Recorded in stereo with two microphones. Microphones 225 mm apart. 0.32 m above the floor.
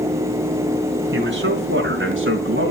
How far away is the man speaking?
About 4 m.